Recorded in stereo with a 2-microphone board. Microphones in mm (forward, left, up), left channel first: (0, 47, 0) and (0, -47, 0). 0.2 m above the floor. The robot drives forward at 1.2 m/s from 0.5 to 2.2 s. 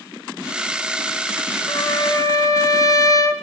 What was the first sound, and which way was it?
A trumpet, 55° left (ahead or behind).